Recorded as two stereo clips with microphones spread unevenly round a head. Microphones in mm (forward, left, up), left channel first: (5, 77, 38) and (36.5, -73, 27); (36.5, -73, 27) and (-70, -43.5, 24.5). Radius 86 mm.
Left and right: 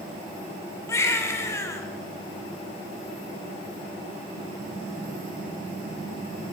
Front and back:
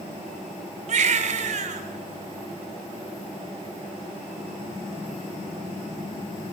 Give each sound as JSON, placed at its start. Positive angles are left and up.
{"t": 0.9, "sound": "a baby crying", "azimuth_deg": 175, "distance_m": 2.5}